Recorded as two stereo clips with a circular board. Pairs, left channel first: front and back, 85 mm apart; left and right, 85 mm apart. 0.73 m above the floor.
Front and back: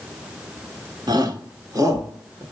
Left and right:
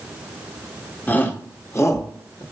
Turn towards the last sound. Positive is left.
turn(degrees=130)